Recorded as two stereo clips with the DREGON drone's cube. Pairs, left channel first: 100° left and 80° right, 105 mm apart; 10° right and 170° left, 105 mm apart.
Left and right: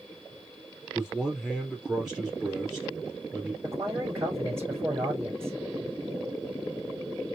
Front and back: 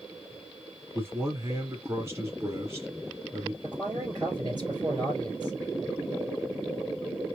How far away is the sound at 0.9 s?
About 1.7 m.